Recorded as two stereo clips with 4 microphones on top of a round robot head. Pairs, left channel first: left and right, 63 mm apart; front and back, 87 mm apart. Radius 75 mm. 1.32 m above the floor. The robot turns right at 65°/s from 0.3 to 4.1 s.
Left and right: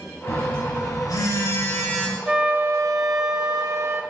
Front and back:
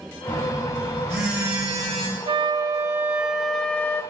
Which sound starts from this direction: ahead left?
A phone buzzing, at 0.3 s.